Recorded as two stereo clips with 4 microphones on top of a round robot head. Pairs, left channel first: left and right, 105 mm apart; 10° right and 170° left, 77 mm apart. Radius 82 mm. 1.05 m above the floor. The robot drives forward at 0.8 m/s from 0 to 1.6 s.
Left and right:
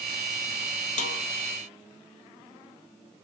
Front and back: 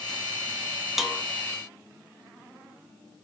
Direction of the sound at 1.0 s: 85° left.